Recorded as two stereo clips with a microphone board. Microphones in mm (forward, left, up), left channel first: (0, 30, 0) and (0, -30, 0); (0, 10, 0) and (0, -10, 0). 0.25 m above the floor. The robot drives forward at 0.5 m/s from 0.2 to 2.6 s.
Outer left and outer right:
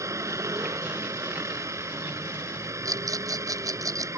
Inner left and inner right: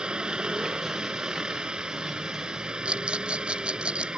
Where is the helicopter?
55° right (ahead or behind).